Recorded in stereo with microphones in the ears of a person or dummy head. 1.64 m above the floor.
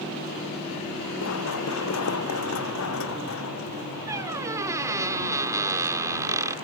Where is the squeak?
10° right (ahead or behind).